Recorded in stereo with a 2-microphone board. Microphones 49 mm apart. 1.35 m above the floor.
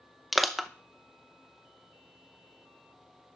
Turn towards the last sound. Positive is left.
turn(degrees=0)  # may be behind; listen again after turning